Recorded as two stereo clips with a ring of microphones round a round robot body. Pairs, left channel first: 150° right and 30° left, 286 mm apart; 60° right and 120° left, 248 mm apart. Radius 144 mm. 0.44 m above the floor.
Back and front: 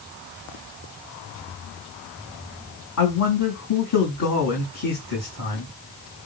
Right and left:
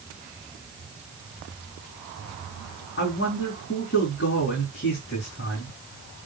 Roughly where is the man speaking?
Behind right.